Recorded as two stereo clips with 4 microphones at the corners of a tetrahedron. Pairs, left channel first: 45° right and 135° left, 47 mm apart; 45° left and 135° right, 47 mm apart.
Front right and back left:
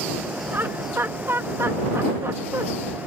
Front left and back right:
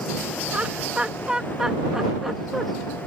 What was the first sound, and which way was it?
Laughter, 165° left.